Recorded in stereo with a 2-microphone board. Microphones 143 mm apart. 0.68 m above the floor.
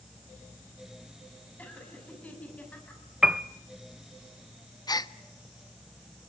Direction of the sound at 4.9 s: 25° left (ahead or behind).